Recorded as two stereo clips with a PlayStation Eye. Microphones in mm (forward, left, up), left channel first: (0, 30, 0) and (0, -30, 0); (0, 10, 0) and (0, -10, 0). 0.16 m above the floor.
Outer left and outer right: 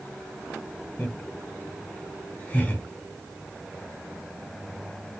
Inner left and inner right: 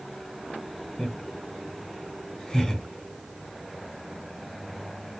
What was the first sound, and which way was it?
Laughter, 30° left (ahead or behind).